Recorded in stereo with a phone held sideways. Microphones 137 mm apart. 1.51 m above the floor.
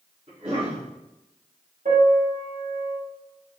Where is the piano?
75° right (ahead or behind), 2.5 m.